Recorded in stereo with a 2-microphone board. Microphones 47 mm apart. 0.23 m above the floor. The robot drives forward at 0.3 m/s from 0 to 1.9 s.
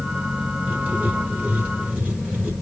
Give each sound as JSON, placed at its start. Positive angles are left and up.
{"t": 0.7, "sound": "writing", "side_deg": -25, "distance_m": 1.7}